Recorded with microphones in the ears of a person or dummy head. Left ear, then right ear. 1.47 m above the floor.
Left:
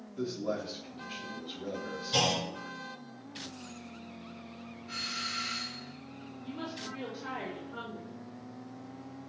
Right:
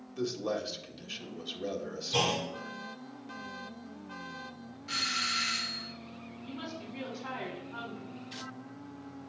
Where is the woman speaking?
5° right (ahead or behind), 4.5 m.